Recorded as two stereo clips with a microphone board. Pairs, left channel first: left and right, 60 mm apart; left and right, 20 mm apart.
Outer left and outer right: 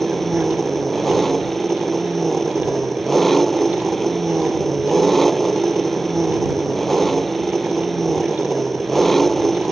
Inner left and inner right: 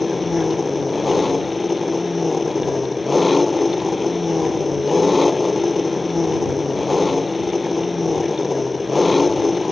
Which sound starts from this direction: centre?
An engine running, at 0.0 s.